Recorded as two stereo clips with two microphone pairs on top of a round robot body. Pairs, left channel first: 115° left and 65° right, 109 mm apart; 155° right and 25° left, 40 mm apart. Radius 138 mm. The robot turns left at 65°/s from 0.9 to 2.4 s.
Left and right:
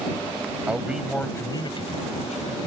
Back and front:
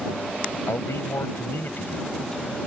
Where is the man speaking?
145° right; by 2.6 s 115° left.